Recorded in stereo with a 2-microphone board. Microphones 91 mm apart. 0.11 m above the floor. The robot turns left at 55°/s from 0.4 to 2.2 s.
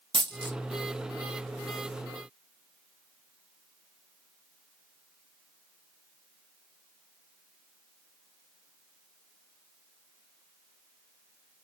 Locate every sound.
0.1 s a dropped coin: 65° right (ahead or behind), 1.1 m; by 0.6 s 60° right (ahead or behind), 1.1 m